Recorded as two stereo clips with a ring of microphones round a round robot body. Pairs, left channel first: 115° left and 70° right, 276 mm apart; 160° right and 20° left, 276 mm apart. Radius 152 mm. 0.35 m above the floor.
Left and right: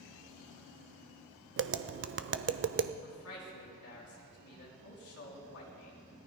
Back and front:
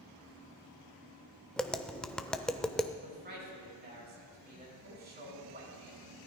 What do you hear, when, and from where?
1.6 s tapping: 75° right, 0.7 m
3.0 s a man speaking: 80° left, 4.5 m